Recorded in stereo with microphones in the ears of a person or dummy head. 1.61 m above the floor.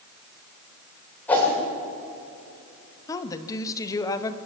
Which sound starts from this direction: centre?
A whoosh, at 1.3 s.